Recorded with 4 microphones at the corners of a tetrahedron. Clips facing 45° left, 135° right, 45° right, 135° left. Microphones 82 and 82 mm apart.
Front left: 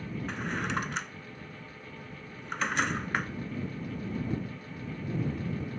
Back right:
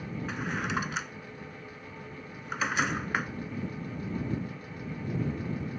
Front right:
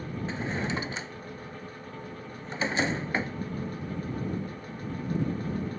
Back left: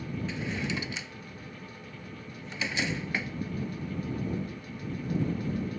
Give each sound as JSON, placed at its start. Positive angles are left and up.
{"t": 0.3, "sound": "a drawer", "azimuth_deg": -50}